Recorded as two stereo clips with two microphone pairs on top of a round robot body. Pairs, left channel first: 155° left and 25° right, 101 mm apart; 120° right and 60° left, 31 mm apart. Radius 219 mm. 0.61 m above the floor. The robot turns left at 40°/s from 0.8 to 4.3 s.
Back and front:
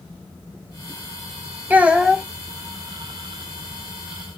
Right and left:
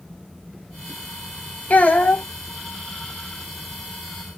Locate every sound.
1.7 s a child speaking: 100° right, 0.7 m; by 2.2 s 125° right, 0.7 m